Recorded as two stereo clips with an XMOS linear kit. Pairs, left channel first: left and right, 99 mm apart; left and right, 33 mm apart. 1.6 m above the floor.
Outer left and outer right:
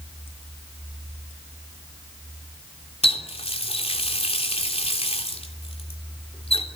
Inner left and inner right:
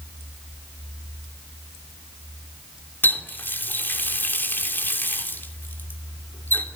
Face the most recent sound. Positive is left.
turn(degrees=70)  # may be behind; listen again after turning